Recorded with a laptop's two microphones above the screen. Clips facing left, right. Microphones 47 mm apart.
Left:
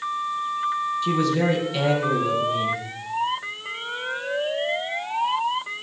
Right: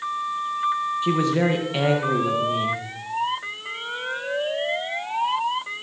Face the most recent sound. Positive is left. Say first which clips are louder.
# right 1 dB
turn(degrees=-30)  # may be behind; listen again after turning